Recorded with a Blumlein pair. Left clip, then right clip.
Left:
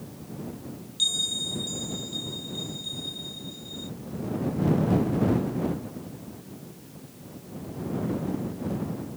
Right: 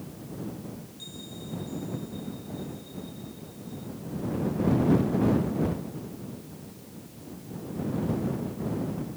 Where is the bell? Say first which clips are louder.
Left 20 dB; 50° left.